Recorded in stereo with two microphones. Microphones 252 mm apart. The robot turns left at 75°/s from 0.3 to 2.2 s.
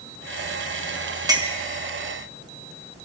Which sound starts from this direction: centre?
A clink, at 1.3 s.